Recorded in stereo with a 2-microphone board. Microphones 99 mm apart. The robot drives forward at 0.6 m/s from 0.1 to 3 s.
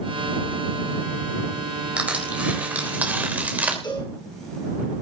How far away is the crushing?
About 3.5 m.